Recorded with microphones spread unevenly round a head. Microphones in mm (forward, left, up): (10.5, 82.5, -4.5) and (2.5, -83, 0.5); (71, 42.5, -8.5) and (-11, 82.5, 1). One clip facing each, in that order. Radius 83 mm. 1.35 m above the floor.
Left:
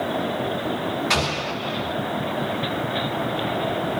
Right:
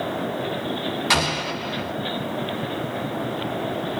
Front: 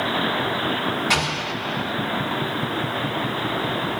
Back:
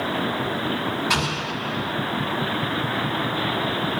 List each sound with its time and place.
1.1 s an explosion: 85° right, 1.8 m